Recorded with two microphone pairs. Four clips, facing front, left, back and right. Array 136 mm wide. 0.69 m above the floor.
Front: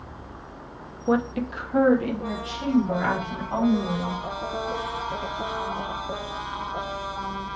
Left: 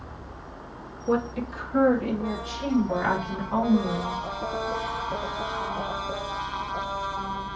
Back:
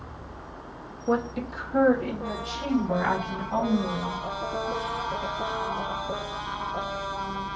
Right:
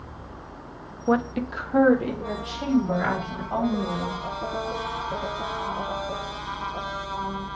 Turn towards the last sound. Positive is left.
turn(degrees=-85)